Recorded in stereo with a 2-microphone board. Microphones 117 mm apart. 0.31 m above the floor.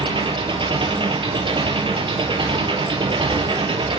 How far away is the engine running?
About 1.8 m.